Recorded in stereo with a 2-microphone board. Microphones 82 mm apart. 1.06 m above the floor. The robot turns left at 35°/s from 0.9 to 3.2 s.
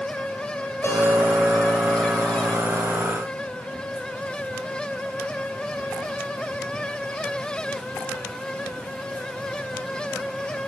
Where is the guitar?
35° left, 4 m; by 2.5 s 25° right, 4 m.